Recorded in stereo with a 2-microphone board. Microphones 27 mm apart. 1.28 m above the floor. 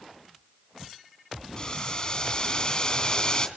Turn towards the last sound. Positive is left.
turn(degrees=20)  # may be behind; listen again after turning